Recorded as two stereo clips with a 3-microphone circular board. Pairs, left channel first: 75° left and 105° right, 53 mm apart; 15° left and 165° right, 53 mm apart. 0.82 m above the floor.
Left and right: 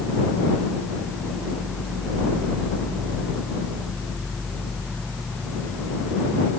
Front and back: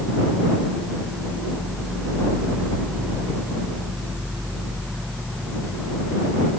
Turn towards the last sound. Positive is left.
No sound to turn to.